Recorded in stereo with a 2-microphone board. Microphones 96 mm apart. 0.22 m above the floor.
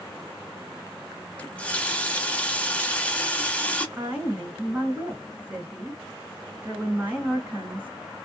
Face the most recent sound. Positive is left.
turn(degrees=-15)  # may be behind; listen again after turning